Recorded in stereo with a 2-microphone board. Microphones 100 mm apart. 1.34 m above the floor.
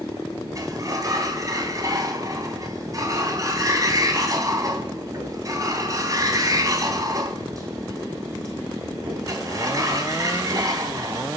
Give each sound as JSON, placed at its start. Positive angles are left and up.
{"t": 0.6, "sound": "a sliding door", "side_deg": -35, "distance_m": 3.0}